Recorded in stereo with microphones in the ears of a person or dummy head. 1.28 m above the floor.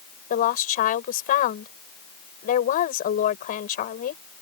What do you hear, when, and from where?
0.3 s a woman speaking: 45° left (ahead or behind)